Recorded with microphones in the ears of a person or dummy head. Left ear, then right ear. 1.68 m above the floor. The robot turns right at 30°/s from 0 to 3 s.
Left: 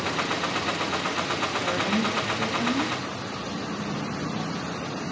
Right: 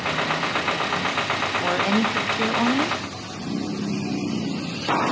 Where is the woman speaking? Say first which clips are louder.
Right 4 dB; 155° right, 0.5 m; by 3.0 s 110° right, 0.5 m.